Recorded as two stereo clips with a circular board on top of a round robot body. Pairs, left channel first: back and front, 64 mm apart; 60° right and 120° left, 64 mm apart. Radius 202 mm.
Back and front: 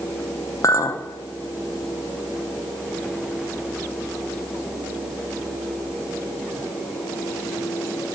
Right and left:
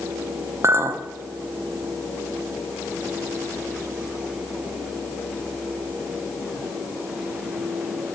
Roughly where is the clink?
Behind left.